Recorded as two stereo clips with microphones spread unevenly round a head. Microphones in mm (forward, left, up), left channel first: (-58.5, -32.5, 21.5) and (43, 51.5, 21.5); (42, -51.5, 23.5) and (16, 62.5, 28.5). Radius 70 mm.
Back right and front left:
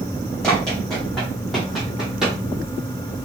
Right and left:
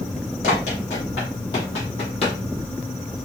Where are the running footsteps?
55° right, 3 m; by 2.4 s 45° right, 2 m.